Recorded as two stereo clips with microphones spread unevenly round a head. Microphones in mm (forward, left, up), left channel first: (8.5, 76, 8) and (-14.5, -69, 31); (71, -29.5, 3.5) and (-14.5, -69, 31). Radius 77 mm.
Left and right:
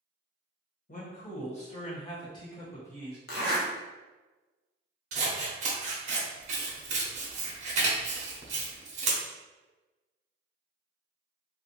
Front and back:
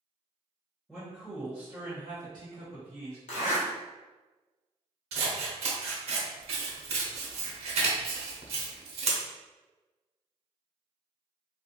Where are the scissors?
145° right, 0.8 m.